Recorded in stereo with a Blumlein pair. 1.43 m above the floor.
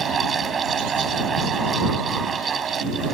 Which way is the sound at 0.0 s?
20° right.